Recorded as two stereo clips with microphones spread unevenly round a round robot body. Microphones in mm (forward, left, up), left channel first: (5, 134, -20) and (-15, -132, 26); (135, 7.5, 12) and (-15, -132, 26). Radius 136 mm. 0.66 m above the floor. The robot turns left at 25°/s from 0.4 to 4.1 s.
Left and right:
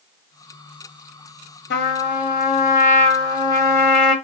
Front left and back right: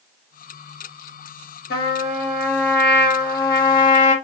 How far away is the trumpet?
About 1.1 m.